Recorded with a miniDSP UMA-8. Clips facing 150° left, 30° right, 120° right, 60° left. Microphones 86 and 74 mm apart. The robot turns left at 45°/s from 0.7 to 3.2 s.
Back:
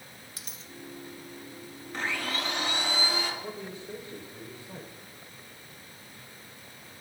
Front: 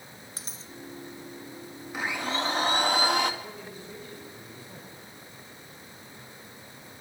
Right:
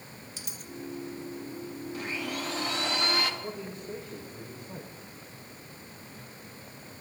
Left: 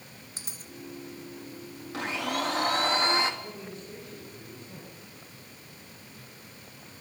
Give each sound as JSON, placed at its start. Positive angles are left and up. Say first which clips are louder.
{"t": 0.4, "sound": "a dropped coin", "louder": "front 2 dB, right 2 dB", "azimuth_deg": 20, "distance_m": 1.8}
{"t": 1.9, "sound": "a blender", "louder": "front 2 dB, left 6 dB", "azimuth_deg": 50, "distance_m": 2.5}
{"t": 3.4, "sound": "a man speaking", "louder": "back 3 dB, right 3 dB", "azimuth_deg": -145, "distance_m": 6.5}